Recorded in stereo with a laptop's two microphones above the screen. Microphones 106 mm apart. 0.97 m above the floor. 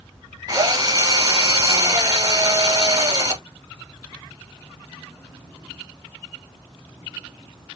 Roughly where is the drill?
Right.